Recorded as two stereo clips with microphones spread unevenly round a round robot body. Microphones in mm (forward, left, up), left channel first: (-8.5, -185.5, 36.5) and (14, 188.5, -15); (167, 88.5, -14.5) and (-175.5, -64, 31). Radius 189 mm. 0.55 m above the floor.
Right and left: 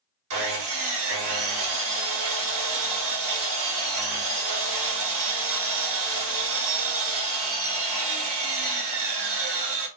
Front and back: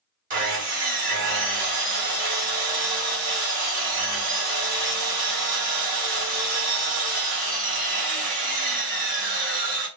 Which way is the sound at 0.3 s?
135° left.